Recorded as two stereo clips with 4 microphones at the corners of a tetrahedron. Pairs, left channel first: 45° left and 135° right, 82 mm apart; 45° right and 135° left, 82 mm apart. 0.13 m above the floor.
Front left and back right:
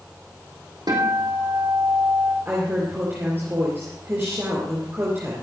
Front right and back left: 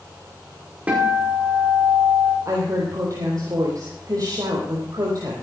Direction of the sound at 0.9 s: 155° right.